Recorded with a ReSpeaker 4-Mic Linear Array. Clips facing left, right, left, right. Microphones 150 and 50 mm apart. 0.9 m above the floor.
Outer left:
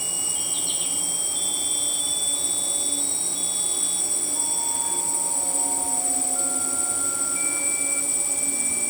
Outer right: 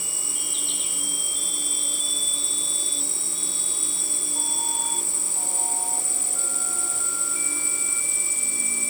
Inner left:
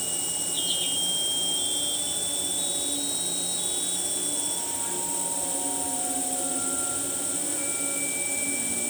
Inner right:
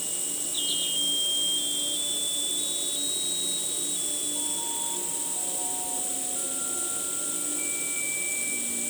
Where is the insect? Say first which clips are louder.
Outer left 3 dB, inner left 4 dB; 60° left (ahead or behind), 2 m.